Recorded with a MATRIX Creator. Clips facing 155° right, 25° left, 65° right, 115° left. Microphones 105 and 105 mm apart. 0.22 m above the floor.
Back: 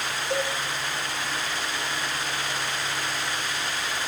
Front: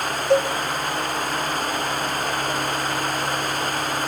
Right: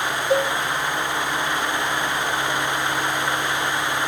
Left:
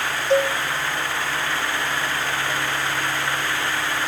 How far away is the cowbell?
About 0.7 m.